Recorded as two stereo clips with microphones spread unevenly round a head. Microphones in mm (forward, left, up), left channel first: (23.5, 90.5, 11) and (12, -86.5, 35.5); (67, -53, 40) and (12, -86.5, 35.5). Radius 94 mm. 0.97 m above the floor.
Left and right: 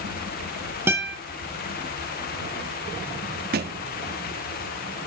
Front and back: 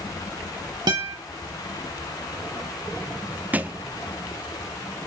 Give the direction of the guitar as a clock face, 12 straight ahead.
6 o'clock.